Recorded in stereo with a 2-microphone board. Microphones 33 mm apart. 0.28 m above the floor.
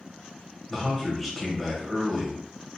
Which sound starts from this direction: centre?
A man speaking, at 0.7 s.